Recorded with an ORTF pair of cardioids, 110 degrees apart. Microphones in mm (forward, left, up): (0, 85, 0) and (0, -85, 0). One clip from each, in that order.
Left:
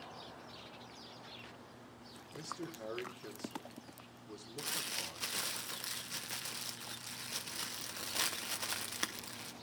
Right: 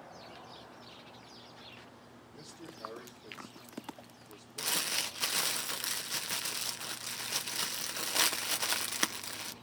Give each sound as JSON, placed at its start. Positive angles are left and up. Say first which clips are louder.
{"t": 2.3, "sound": "a man speaking", "louder": "left 5 dB", "azimuth_deg": 55, "distance_m": 4.0}
{"t": 4.6, "sound": "crumpling", "louder": "right 7 dB", "azimuth_deg": -30, "distance_m": 0.8}